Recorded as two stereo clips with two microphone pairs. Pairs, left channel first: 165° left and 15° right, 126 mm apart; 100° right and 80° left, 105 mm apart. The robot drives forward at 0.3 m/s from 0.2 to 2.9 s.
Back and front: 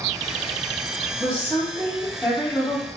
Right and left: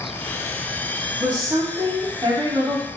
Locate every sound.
1.2 s a woman speaking: 75° left, 1.1 m; by 2.9 s 115° left, 1.2 m